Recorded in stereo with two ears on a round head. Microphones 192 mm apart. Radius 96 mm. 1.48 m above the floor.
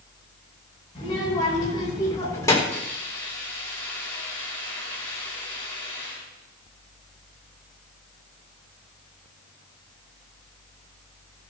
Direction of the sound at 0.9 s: 20° left (ahead or behind).